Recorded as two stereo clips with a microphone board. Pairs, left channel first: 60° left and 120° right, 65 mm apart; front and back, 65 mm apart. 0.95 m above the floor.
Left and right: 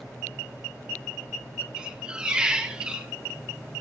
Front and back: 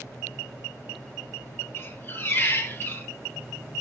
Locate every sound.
1.8 s a squeak: 45° right, 1.4 m